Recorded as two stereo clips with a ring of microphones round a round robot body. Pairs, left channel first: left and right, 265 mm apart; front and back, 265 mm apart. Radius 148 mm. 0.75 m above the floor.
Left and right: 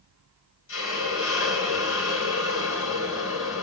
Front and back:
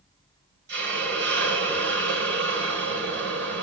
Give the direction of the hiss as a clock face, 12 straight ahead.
8 o'clock.